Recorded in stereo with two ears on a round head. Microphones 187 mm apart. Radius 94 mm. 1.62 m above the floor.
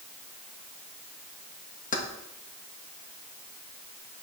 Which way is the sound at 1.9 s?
35° left (ahead or behind).